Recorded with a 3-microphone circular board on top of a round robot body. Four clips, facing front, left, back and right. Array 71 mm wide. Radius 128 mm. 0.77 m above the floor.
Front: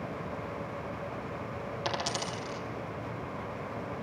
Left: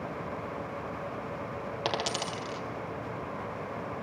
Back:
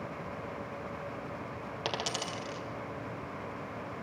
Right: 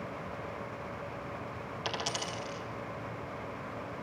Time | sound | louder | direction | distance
1.9 | a dropped coin | left 4 dB, front 2 dB | 110° left | 2.5 m